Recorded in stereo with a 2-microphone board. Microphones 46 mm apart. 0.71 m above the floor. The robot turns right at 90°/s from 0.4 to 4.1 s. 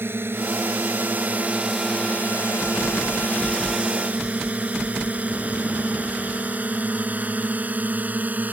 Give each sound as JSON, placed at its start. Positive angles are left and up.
{"t": 0.0, "sound": "a drone", "side_deg": -55}